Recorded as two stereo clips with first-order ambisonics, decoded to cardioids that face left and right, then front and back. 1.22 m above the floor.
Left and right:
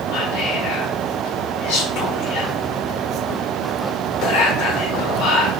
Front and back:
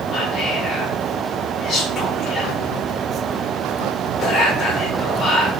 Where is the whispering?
65° left, 1.0 m.